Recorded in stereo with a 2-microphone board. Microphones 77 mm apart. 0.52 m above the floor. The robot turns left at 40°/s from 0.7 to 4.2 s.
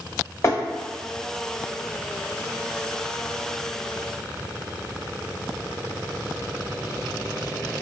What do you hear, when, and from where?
0.4 s tapping: 35° left (ahead or behind), 1.0 m